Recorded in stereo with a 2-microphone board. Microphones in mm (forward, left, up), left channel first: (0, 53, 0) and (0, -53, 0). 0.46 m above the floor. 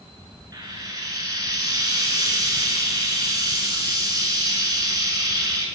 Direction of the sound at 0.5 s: 40° right (ahead or behind).